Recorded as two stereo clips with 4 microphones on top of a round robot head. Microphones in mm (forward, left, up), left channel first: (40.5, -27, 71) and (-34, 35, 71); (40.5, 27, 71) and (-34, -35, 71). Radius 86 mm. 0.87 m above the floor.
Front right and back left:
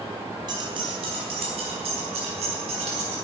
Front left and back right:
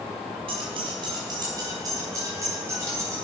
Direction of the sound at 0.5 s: 175° right.